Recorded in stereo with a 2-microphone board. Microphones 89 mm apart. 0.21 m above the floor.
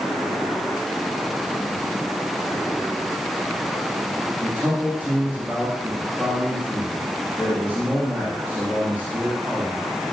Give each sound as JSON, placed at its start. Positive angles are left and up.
{"t": 4.4, "sound": "a man speaking", "side_deg": -10, "distance_m": 9.5}